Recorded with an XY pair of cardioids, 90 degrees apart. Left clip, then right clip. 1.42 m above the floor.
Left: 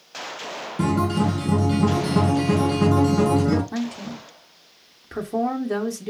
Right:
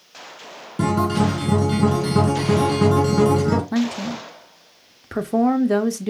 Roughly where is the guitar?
Ahead right.